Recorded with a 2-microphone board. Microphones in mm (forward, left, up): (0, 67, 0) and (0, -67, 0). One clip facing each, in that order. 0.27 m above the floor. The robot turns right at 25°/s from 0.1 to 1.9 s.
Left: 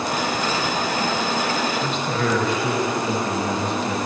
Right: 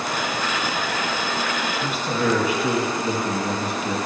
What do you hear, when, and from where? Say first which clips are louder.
1.8 s a man speaking: even; 10° right (ahead or behind), 1.0 m